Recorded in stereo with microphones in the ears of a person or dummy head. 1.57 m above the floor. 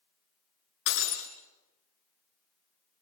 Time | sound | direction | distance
0.9 | breaking glass | 70° left (ahead or behind) | 4 m